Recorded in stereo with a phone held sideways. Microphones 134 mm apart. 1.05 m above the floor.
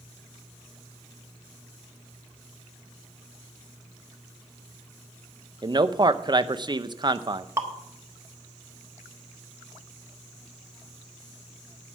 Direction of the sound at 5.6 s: 35° right (ahead or behind).